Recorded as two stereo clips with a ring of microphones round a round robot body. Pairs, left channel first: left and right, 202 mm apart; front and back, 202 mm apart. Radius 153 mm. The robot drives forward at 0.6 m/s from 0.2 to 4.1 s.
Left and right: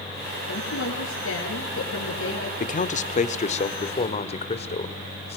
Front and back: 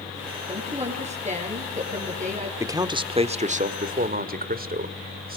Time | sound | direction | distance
0.5 | a woman speaking | 120° left | 8.5 m
2.6 | a man speaking | 110° left | 1.3 m